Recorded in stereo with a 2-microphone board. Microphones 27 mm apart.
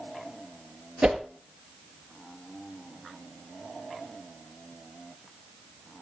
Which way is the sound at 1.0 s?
60° right (ahead or behind).